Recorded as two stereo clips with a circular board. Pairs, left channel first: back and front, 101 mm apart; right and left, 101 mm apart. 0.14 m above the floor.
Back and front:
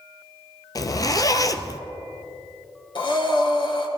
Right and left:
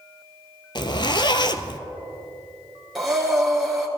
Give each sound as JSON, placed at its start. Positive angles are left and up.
{"t": 0.8, "sound": "a zipper", "azimuth_deg": -130, "distance_m": 0.6}
{"t": 3.0, "sound": "breathing", "azimuth_deg": 180, "distance_m": 1.6}